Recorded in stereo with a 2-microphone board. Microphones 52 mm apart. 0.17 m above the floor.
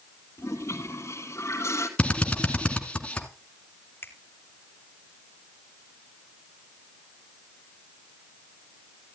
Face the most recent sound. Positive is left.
turn(degrees=45)  # may be behind; listen again after turning